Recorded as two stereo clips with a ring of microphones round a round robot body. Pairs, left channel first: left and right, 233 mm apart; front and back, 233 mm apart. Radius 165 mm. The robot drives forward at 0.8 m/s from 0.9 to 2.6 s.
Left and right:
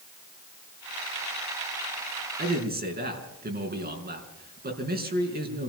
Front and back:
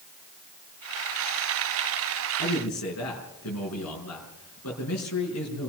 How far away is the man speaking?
About 5.5 m.